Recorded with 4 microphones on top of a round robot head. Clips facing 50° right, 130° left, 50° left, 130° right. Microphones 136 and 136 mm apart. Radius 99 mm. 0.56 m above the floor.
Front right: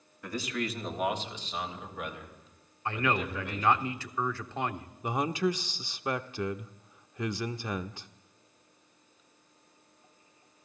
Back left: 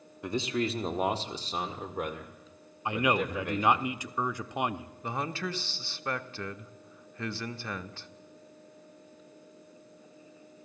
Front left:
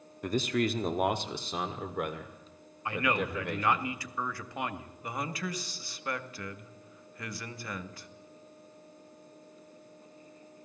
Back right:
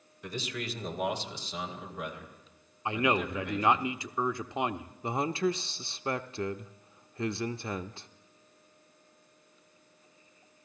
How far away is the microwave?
No microwave in this recording.